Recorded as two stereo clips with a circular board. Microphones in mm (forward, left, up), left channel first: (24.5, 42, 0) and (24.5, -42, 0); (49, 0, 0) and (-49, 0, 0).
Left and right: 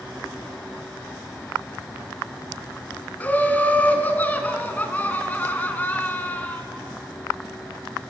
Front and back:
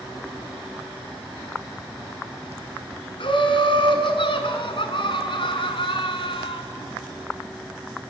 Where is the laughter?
20° left, 3 m.